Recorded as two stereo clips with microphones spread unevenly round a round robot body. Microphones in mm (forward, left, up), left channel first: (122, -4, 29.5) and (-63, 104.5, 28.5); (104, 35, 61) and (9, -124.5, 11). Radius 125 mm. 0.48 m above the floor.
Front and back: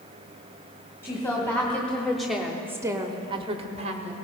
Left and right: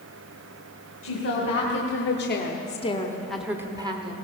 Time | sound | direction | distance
1.0 | a woman speaking | 45° left | 2.5 m